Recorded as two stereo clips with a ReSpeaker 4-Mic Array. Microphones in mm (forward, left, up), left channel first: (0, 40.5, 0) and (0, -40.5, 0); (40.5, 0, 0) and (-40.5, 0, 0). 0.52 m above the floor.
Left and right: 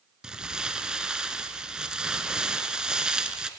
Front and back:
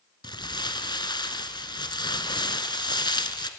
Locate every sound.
0.2 s crumpling: 10° right, 1.0 m